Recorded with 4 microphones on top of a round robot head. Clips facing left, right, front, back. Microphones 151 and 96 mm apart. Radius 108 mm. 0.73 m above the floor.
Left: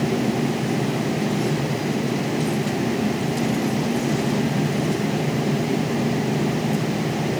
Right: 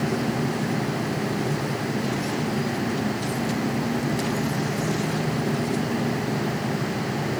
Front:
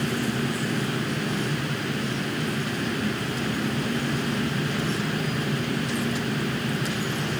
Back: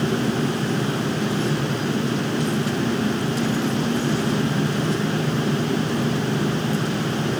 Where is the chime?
No chime in this recording.